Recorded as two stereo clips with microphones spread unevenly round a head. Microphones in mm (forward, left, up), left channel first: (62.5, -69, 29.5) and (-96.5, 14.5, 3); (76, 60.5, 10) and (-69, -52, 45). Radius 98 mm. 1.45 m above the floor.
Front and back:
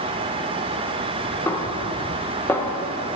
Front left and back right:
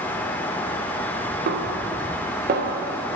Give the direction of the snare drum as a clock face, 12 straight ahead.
3 o'clock.